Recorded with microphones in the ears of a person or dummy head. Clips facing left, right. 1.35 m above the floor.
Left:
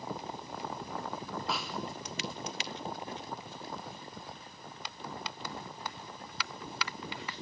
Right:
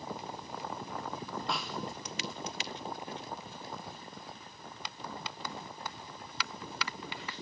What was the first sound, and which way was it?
A snare drum, 5° right (ahead or behind).